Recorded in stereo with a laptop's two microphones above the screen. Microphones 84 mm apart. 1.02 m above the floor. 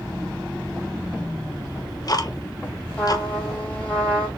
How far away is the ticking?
About 0.6 m.